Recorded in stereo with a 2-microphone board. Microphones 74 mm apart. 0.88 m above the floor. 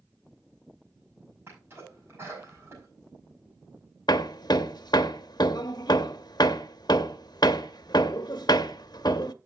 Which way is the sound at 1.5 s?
35° right (ahead or behind).